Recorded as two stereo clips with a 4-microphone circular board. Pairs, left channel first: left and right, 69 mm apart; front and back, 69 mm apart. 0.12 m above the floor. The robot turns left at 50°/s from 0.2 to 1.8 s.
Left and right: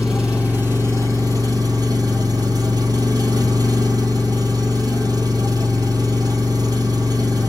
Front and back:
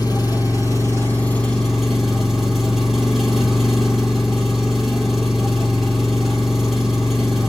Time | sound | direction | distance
0.0 | an engine running | 10° right | 1.7 m